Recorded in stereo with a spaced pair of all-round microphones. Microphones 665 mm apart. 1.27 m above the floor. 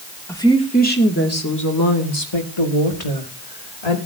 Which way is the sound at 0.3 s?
5° left (ahead or behind).